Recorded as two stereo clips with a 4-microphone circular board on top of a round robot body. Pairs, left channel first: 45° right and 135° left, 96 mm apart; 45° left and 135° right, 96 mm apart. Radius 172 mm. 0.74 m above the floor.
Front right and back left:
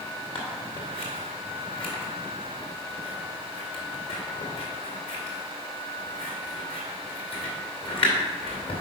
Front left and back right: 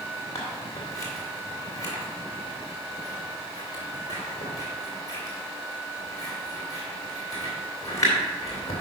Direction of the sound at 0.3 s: 15° right.